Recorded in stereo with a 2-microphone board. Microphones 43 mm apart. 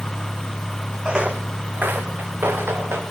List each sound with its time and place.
1.1 s footsteps: 20° right (ahead or behind), 1.6 m; by 3.0 s 65° right (ahead or behind), 3.5 m